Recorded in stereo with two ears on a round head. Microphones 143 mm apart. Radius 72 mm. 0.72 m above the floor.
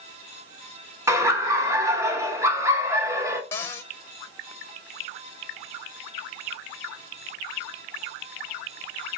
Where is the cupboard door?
15° left (ahead or behind), 0.8 m.